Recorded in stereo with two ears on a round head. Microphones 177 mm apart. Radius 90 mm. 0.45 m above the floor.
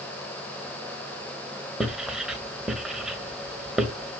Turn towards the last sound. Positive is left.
turn(degrees=-5)  # may be behind; listen again after turning